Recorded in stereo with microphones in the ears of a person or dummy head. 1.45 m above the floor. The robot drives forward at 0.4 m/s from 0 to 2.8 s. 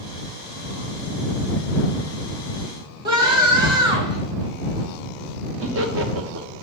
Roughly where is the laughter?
Right.